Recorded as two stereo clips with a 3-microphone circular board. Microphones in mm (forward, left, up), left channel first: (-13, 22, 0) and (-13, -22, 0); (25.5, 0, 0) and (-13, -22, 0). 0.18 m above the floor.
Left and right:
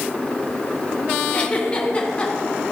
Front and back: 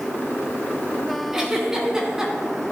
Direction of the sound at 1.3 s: 135° left.